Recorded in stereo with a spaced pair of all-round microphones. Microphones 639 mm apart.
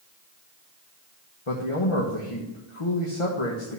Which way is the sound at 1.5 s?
50° left (ahead or behind).